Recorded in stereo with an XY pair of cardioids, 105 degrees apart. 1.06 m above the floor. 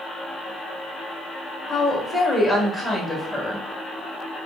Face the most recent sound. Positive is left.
turn(degrees=15)